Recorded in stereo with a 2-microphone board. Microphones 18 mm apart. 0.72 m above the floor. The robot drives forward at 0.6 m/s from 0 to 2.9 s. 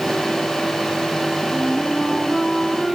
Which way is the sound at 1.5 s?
10° left (ahead or behind).